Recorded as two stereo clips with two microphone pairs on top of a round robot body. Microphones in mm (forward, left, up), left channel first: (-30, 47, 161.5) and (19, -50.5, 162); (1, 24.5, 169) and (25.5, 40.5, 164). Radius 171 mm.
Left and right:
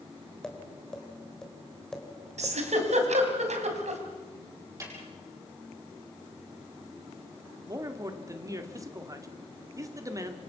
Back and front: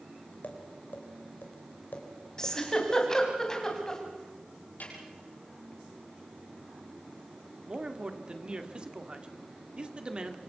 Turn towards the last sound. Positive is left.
turn(degrees=-10)